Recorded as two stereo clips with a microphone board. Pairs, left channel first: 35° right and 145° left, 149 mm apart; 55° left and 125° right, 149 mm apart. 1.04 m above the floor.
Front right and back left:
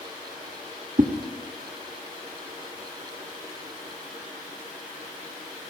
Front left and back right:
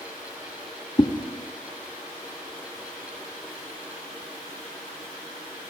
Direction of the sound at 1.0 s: 115° left.